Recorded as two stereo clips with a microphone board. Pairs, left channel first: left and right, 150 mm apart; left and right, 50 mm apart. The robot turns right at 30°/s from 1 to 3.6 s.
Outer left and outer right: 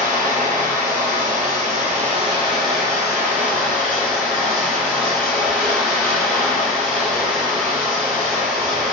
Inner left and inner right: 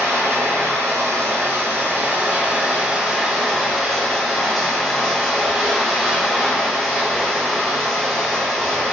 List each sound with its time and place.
0.0 s running water: 80° right, 1.0 m; by 8.9 s 5° right, 1.0 m